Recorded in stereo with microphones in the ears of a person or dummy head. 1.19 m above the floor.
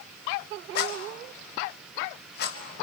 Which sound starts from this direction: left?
A rattle, at 0.8 s.